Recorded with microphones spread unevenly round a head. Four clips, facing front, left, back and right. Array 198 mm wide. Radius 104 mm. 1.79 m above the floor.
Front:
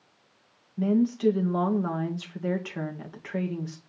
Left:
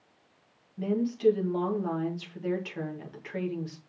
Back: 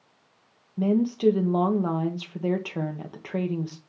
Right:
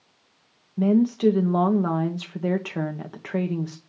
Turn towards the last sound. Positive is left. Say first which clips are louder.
# right 8 dB, back 1 dB
turn(degrees=-120)